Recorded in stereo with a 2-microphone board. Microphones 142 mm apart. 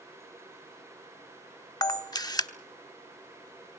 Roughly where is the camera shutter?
Left.